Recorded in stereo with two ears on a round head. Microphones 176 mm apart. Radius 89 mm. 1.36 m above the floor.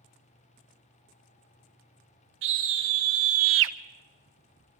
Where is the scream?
65° right (ahead or behind), 2 m.